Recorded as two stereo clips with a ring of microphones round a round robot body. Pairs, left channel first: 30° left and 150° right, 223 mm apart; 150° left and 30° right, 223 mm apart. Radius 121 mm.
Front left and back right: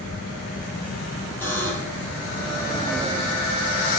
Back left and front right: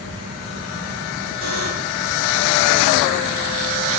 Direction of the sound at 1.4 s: 50° right.